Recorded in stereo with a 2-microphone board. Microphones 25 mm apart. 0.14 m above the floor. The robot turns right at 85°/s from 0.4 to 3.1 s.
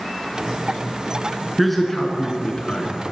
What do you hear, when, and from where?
1.6 s a man speaking: 5° right (ahead or behind), 1.5 m; by 3.0 s 40° left (ahead or behind), 1.5 m